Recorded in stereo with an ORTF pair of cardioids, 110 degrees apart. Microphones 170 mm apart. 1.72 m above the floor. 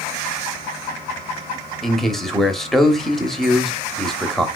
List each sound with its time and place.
1.8 s a man speaking: straight ahead, 0.8 m